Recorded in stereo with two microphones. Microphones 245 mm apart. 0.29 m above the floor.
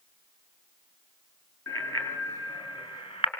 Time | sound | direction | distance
1.7 | a bicycle bell | 10° left (ahead or behind) | 4 m